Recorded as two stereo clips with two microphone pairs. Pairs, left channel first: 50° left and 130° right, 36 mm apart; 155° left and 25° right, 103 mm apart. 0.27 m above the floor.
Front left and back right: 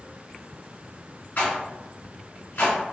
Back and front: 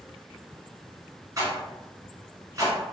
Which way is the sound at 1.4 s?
35° left.